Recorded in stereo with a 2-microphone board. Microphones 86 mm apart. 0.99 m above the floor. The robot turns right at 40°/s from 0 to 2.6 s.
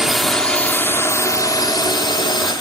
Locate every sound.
0.0 s a drone: 5° right; by 2.6 s 95° left